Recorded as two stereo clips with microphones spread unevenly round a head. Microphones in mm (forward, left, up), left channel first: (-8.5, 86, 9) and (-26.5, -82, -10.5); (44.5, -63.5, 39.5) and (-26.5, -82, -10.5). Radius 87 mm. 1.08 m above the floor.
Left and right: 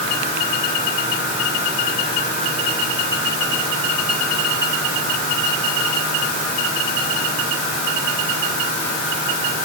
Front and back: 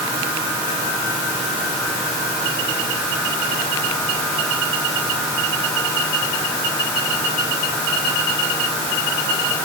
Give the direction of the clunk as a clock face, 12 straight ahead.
No clunk in this recording.